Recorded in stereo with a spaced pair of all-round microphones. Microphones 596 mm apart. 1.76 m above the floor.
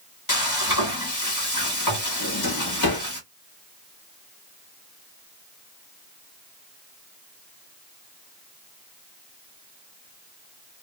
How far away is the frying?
About 1.4 m.